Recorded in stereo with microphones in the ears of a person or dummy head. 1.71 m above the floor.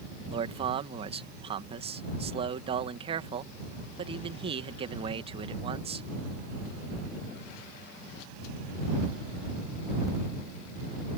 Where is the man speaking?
35° right (ahead or behind).